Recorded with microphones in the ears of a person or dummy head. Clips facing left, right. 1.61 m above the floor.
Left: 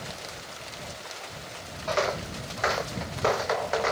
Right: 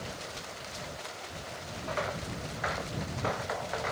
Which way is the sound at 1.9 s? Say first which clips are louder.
Left 8 dB; 55° left (ahead or behind).